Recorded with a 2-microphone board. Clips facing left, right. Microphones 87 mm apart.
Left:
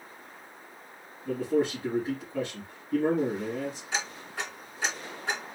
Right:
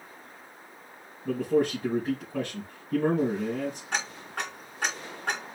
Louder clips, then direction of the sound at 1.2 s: Right 2 dB; 55° right (ahead or behind).